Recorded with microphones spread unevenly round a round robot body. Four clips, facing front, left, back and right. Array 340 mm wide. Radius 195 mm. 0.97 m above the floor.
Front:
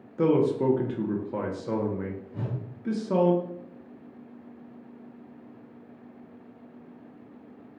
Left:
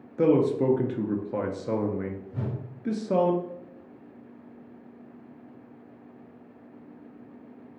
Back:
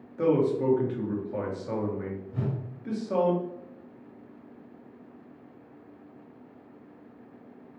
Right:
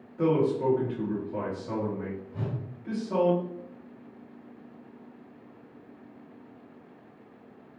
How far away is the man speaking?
About 0.6 m.